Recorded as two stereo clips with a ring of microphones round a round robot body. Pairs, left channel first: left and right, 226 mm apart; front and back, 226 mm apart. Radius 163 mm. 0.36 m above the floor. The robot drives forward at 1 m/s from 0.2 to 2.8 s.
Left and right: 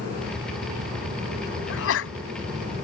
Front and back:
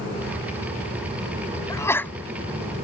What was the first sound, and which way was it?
A sneeze, 75° left.